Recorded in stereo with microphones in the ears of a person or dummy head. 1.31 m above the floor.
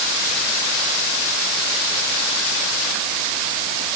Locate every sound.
Only background noise.